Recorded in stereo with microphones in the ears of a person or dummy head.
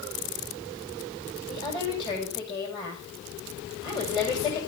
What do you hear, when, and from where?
1.5 s a woman speaking: 25° left (ahead or behind), 5.5 m